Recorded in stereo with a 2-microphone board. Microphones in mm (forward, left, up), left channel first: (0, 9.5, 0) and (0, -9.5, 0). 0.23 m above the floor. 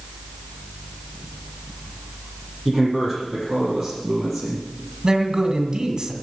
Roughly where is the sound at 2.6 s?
Centre.